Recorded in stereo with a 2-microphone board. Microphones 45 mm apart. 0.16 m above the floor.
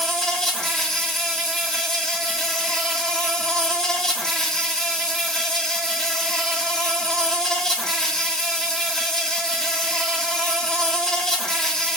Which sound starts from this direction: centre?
An insect, at 0.0 s.